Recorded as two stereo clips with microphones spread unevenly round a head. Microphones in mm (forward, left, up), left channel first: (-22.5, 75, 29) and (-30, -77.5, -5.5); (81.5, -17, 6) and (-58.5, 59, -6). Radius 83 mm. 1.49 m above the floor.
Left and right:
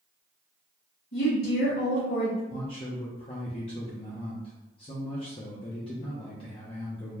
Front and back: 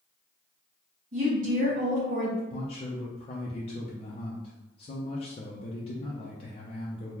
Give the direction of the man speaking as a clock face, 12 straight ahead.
11 o'clock.